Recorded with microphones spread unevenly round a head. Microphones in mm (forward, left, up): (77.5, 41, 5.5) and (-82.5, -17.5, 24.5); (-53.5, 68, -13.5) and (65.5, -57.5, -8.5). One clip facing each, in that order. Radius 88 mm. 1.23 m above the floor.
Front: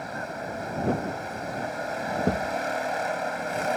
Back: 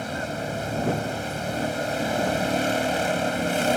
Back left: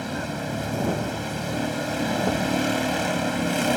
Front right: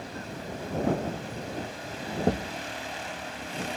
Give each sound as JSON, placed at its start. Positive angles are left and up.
{"t": 0.0, "sound": "a vehicle", "azimuth_deg": 150}
{"t": 2.2, "sound": "a thud", "azimuth_deg": 15}